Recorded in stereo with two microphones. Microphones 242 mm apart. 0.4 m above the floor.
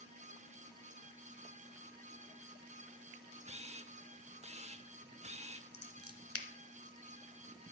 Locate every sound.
3.5 s a camera shutter: 25° right (ahead or behind), 0.5 m
5.7 s scissors: 70° left (ahead or behind), 1.1 m